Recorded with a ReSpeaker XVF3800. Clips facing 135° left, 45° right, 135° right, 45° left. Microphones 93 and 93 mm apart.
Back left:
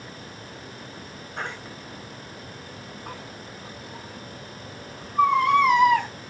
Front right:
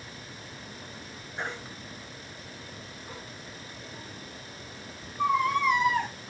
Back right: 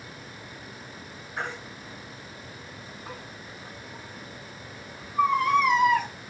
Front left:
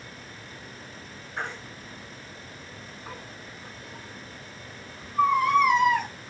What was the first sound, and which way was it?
A baby crying, 135° left.